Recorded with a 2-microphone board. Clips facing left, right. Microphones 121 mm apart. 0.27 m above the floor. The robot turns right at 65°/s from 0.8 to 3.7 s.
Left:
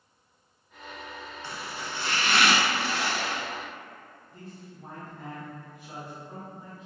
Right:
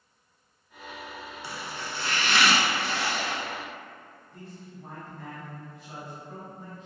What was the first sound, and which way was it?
Chopping, 15° right.